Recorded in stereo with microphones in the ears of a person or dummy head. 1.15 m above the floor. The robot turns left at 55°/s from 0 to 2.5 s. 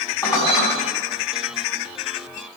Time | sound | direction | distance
0.2 | dishes clattering | 15° left (ahead or behind) | 0.8 m